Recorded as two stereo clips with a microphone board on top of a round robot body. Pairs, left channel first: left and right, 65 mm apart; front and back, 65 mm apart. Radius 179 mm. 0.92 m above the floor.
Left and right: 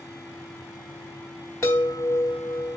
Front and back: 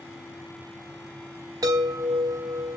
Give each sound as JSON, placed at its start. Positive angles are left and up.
{"t": 1.6, "sound": "a chime", "azimuth_deg": 145, "distance_m": 1.0}